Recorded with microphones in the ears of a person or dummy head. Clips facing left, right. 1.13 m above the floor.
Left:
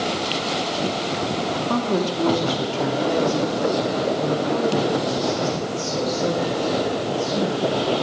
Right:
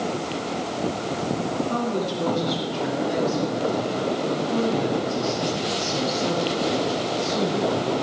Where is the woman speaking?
75° left (ahead or behind), 2.5 m; by 8.1 s 55° left (ahead or behind), 5.5 m.